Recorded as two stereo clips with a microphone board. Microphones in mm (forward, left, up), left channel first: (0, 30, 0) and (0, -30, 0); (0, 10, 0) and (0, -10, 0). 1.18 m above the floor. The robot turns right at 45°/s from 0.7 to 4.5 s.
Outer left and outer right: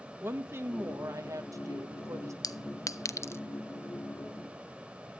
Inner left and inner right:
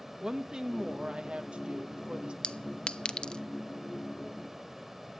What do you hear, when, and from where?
0.2 s a woman speaking: 135° right, 1.6 m; by 2.3 s 65° right, 1.6 m
2.4 s a clink: 80° left, 0.6 m; by 3.4 s 40° left (ahead or behind), 0.6 m